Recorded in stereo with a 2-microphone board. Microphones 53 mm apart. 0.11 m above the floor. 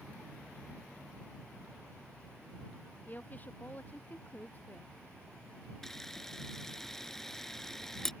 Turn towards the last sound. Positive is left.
turn(degrees=5)  # may be behind; listen again after turning